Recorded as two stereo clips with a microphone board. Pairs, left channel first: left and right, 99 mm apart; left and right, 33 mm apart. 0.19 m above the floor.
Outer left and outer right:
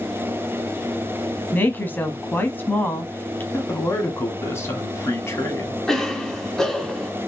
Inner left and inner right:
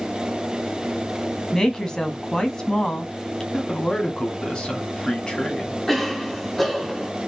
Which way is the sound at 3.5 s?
25° left (ahead or behind).